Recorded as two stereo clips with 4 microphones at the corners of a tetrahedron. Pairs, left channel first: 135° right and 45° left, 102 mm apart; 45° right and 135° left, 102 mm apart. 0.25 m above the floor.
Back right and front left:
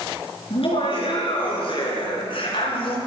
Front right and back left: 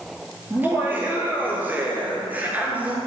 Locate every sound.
0.5 s laughter: 155° right, 5 m; by 3.0 s 150° right, 4 m